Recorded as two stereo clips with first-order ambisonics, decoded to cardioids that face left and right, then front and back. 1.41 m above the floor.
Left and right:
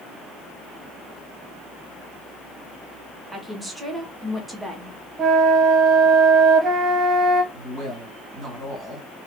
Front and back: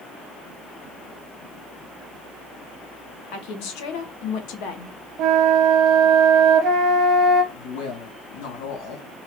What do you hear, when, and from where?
3.3 s a woman speaking: 5° right, 1.0 m
5.2 s a flute: 150° right, 1.0 m
7.5 s a woman speaking: 15° right, 2 m